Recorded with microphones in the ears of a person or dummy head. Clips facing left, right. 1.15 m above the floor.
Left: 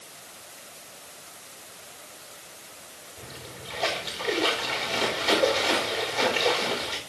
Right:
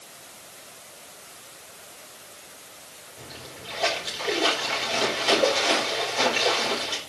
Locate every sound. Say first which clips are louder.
3.2 s a splash: even; 5° right (ahead or behind), 3.5 m